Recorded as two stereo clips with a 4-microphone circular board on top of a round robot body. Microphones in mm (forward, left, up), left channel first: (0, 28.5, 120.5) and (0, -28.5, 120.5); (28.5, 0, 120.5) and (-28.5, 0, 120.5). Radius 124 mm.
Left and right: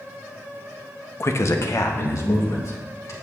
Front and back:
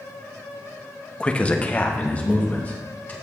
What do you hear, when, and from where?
1.2 s a man speaking: 65° left, 1.0 m; by 3.1 s 60° left, 4 m